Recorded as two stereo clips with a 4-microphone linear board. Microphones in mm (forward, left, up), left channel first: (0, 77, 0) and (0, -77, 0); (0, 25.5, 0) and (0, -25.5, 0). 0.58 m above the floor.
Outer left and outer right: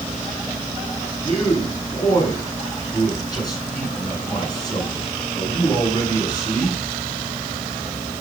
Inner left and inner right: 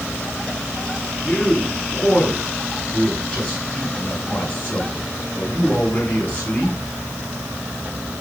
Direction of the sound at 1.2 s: 25° left (ahead or behind).